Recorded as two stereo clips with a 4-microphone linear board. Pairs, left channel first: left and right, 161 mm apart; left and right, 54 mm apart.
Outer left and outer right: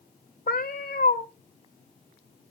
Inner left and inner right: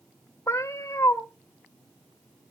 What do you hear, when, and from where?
0.5 s a cat meowing: 70° left (ahead or behind), 1.7 m